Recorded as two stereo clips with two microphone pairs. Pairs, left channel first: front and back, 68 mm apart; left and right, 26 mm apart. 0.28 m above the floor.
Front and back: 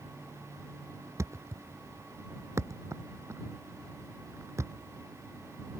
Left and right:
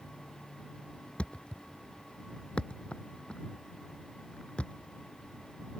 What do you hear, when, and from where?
1.2 s a thud: 140° left